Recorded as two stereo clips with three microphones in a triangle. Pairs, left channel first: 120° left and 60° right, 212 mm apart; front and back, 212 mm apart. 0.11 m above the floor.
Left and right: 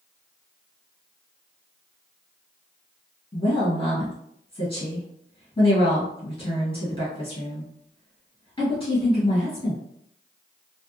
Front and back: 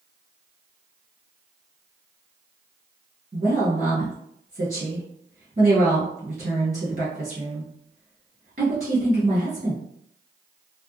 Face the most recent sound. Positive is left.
turn(degrees=170)